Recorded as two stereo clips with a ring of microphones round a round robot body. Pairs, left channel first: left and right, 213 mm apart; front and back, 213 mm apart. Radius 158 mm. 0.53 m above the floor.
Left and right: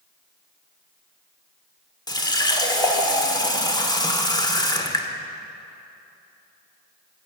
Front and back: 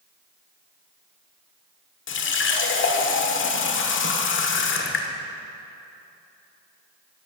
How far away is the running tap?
About 1.3 m.